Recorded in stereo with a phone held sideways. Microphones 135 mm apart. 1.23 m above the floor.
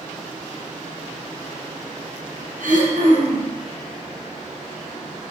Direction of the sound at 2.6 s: 80° right.